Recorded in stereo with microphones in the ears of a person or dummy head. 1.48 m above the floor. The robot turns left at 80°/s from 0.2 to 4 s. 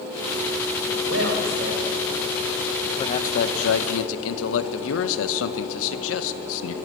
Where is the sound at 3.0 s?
165° left, 1.3 m; by 6.7 s 80° left, 1.3 m.